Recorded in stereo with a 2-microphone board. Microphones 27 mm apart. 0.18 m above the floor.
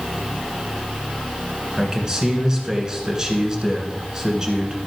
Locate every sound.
1.8 s a man speaking: 25° right (ahead or behind), 1.7 m